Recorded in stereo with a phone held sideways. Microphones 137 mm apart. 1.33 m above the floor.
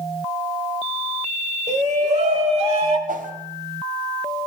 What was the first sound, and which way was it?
A shout, 60° right (ahead or behind).